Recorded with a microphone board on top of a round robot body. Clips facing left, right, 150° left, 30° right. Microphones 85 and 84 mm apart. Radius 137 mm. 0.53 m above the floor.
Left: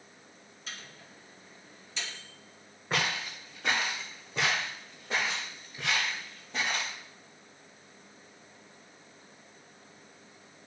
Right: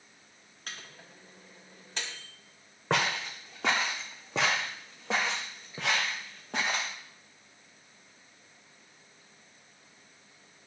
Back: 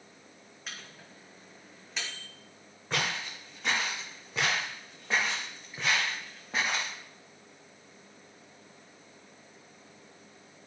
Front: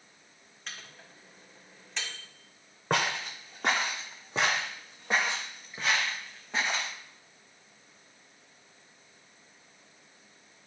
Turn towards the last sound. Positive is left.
turn(degrees=-130)